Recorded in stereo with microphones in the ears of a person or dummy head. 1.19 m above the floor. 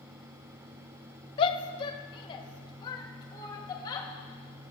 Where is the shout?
25° left (ahead or behind), 0.9 m; by 4.1 s 20° left (ahead or behind), 2.5 m.